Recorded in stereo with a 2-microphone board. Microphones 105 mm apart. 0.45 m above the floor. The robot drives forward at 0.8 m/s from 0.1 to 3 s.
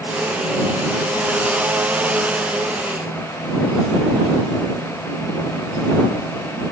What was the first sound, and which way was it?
Only background noise.